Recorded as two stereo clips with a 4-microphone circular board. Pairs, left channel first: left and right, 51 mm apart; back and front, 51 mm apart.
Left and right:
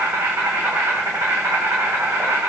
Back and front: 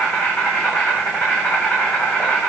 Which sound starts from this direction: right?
An insect, at 0.0 s.